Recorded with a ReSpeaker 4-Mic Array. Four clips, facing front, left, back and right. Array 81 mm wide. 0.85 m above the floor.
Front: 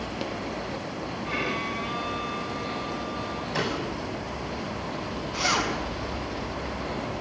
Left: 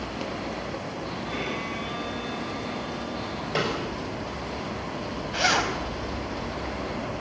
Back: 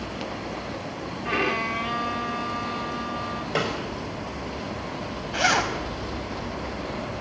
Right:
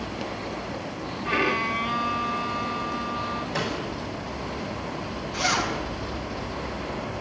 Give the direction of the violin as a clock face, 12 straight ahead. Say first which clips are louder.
Right 10 dB, back 6 dB; 5 o'clock.